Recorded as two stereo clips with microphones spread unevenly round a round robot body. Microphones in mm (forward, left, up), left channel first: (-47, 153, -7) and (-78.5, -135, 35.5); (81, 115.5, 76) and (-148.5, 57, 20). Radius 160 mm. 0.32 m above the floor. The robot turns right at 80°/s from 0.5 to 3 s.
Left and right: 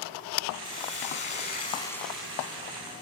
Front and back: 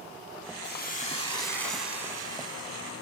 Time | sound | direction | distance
0.6 | a hiss | 40° left | 1.3 m